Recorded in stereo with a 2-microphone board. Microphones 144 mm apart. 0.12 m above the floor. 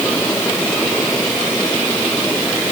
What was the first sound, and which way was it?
Only background noise.